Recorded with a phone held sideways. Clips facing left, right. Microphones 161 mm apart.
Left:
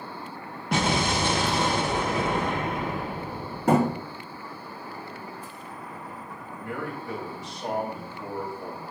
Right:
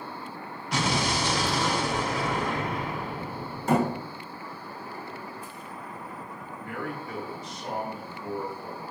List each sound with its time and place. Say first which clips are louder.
0.7 s an explosion: left 3 dB; 55° left (ahead or behind), 1.5 m
3.7 s a thud: left 3 dB; 65° left (ahead or behind), 5 m
6.6 s a man speaking: left 2 dB; 85° left, 3.5 m